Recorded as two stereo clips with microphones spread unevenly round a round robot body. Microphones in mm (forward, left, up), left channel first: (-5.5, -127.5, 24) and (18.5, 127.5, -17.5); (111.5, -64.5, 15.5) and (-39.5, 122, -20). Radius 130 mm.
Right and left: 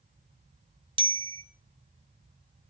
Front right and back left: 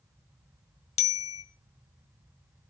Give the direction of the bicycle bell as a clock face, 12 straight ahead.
12 o'clock.